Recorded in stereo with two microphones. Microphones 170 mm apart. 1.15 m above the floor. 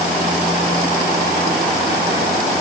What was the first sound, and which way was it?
Only background noise.